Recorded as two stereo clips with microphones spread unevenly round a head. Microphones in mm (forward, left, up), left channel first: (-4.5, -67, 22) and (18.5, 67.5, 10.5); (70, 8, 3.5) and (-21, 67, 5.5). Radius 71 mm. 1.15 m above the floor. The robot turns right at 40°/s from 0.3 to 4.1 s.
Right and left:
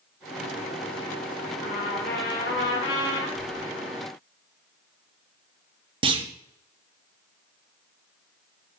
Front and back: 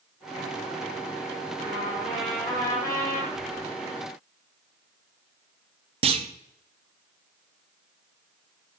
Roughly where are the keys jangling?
Left.